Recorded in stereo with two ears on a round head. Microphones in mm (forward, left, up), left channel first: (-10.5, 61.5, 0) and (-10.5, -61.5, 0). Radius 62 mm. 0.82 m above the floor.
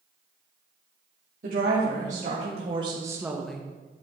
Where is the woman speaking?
65° right (ahead or behind), 2 m; by 3.6 s 10° left (ahead or behind), 1.0 m.